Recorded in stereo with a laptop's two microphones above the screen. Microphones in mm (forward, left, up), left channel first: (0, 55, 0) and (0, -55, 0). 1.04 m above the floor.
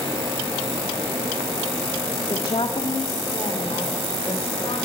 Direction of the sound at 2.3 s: 50° left (ahead or behind).